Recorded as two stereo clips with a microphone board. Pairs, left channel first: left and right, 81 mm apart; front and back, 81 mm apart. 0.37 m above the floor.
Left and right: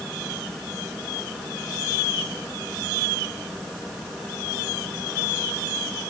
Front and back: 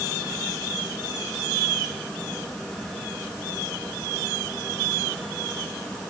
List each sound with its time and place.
Only background noise.